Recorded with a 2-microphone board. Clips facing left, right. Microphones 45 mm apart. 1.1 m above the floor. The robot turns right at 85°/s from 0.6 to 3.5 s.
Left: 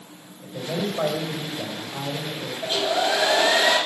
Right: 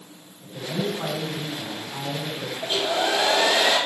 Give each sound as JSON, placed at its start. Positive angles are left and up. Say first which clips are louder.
{"t": 0.4, "sound": "a man speaking", "louder": "even", "azimuth_deg": 35, "distance_m": 5.5}
{"t": 2.6, "sound": "a hair dryer", "louder": "left 1 dB", "azimuth_deg": -170, "distance_m": 6.5}